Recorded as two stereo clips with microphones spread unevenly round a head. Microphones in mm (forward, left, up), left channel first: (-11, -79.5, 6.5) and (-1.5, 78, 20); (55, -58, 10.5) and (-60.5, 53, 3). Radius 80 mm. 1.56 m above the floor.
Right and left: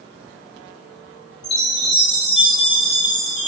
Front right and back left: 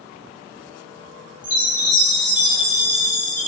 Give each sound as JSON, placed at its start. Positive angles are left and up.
{"t": 1.4, "sound": "a chime", "azimuth_deg": 180, "distance_m": 3.5}